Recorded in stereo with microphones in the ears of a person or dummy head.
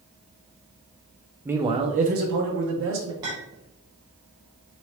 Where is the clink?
20° right (ahead or behind), 0.6 m.